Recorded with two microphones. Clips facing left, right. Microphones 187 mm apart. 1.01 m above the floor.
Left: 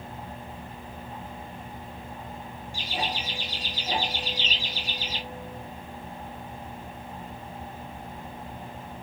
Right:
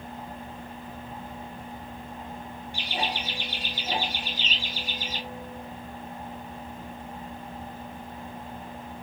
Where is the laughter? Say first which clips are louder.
Right 1 dB; 70° right (ahead or behind), 1.2 m; by 5.2 s 50° right (ahead or behind), 2 m.